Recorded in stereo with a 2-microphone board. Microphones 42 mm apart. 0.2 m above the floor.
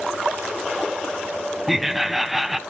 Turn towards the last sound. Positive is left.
turn(degrees=-5)  # may be behind; listen again after turning